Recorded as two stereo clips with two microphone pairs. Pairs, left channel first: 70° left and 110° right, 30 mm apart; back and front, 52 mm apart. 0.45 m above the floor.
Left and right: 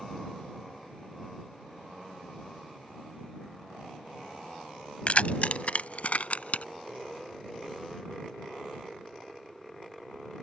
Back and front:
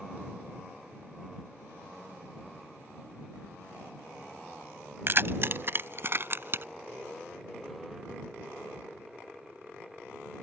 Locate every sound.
5.1 s keys jangling: 35° left; by 6.7 s 40° left